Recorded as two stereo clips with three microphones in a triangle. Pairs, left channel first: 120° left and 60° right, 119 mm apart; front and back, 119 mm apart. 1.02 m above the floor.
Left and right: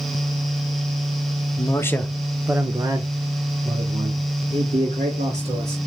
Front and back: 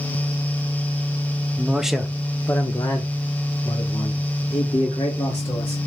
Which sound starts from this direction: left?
A man speaking, at 1.6 s.